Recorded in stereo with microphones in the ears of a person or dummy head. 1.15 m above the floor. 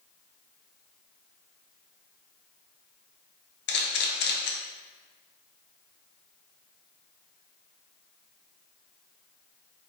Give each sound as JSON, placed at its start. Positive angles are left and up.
{"t": 3.7, "sound": "a camera shutter", "side_deg": 55, "distance_m": 0.5}